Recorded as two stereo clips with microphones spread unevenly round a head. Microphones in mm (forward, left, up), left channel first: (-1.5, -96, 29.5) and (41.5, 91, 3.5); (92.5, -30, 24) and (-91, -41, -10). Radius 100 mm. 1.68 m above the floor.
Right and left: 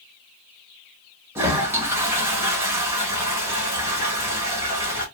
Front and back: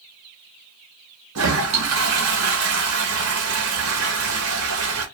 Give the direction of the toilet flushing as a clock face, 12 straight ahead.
7 o'clock.